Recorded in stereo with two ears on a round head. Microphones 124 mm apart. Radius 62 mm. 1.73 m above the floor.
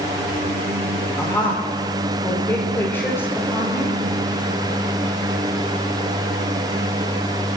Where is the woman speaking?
15° left (ahead or behind), 5 m.